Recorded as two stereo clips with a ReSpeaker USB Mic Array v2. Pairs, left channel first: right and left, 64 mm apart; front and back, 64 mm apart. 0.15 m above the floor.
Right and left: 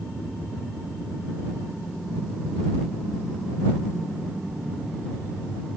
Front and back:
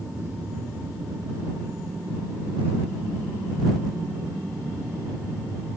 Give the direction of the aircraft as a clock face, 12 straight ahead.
6 o'clock.